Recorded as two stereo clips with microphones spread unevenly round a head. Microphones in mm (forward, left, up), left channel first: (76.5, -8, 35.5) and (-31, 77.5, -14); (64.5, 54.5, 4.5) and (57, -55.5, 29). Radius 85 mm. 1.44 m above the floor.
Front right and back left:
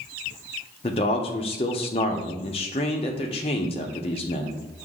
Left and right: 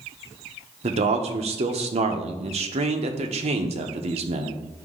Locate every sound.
0.8 s a man speaking: 85° right, 0.8 m